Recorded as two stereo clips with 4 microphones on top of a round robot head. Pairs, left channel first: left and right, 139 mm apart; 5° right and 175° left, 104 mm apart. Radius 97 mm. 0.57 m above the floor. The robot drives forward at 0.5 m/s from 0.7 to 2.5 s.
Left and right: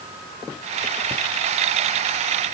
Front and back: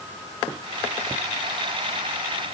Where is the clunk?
I don't hear a clunk.